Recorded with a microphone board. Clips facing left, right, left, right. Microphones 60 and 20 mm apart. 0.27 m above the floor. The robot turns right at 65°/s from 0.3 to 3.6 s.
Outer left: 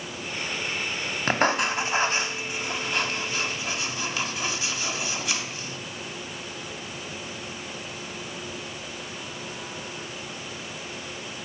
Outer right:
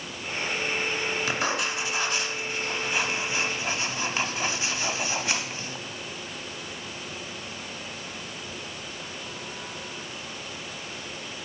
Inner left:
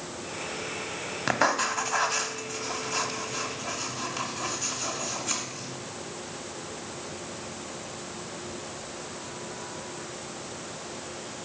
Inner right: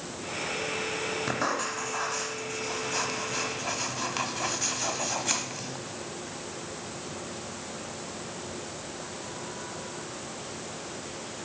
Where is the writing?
45° left (ahead or behind), 1.3 m; by 5.8 s 35° right (ahead or behind), 1.3 m.